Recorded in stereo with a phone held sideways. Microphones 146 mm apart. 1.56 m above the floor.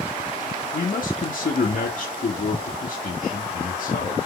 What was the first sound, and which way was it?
A man speaking, 70° left (ahead or behind).